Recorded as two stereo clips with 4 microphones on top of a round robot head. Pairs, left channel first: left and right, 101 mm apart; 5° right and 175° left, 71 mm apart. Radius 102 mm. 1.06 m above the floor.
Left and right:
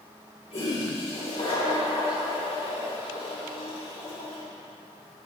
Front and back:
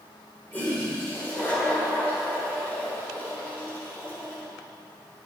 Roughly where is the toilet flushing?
Ahead left.